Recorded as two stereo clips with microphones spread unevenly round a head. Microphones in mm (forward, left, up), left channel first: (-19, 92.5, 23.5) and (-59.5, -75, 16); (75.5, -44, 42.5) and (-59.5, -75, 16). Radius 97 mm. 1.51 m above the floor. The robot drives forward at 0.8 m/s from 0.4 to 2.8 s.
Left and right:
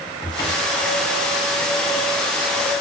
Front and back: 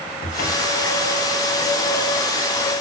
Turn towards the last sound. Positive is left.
turn(degrees=10)